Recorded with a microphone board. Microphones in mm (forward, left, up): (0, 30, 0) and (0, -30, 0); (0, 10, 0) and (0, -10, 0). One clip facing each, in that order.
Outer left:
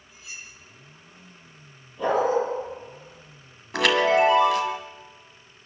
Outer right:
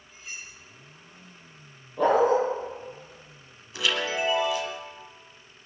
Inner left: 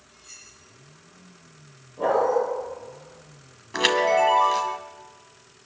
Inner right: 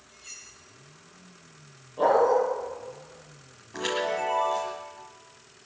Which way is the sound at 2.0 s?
65° right (ahead or behind).